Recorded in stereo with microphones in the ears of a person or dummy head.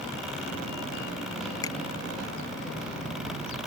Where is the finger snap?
15° left (ahead or behind).